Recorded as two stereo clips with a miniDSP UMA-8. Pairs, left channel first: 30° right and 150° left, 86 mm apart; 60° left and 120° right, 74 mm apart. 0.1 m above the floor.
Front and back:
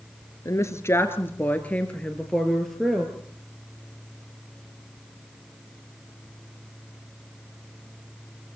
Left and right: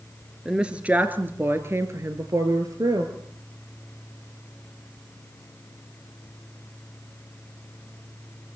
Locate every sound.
0.5 s a woman speaking: 45° right, 2 m; by 3.1 s 120° right, 2.5 m